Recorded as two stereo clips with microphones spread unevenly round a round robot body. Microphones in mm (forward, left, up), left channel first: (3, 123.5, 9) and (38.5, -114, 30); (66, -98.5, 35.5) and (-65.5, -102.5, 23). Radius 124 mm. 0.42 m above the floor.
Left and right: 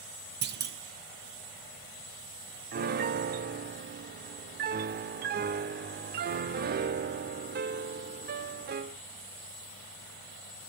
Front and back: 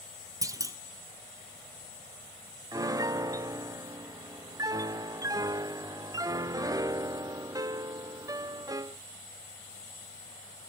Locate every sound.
0.4 s a clunk: 125° right, 1.4 m
2.7 s a piano: 125° right, 0.5 m